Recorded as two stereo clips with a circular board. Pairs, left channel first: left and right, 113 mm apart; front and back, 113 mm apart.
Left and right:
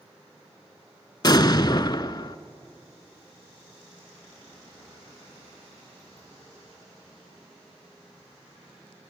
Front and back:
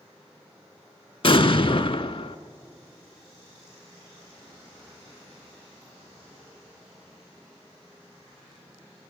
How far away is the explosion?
About 0.5 m.